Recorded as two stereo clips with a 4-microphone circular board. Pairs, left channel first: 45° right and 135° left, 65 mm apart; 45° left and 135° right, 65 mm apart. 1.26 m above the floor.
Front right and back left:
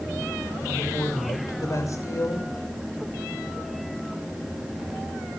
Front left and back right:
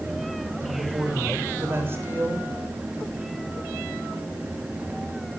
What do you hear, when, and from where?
0.6 s a woman speaking: 80° right, 6 m